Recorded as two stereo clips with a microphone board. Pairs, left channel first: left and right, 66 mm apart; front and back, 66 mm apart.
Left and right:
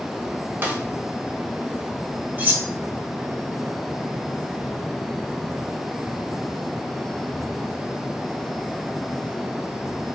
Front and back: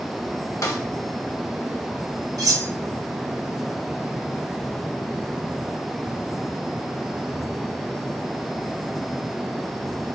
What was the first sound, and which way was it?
A snare drum, 35° right.